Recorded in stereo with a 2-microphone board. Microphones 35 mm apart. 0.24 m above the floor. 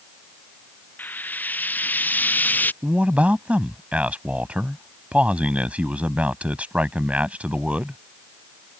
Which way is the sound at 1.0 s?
55° left (ahead or behind).